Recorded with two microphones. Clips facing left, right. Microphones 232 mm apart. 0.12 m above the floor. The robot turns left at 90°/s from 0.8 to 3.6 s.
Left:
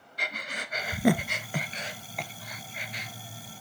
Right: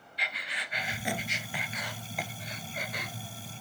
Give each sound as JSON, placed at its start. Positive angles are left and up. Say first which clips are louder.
{"t": 0.2, "sound": "breathing", "louder": "left 6 dB", "side_deg": 50, "distance_m": 0.6}